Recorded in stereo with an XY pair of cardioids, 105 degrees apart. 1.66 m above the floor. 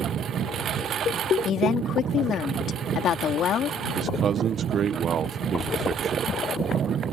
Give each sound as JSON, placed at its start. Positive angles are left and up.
{"t": 0.0, "sound": "a lawn mower", "azimuth_deg": -60}
{"t": 1.4, "sound": "a woman speaking", "azimuth_deg": 65}
{"t": 4.0, "sound": "a man speaking", "azimuth_deg": -55}